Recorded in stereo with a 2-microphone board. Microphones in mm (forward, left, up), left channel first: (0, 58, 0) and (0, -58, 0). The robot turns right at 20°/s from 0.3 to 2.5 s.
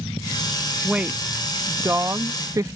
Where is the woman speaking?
165° right; by 2.8 s 135° right.